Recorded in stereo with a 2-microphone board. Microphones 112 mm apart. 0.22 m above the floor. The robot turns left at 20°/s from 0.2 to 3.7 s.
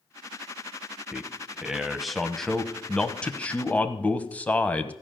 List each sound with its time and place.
1.1 s a man speaking: 5° right (ahead or behind), 1.0 m; by 4.9 s 15° left (ahead or behind), 1.0 m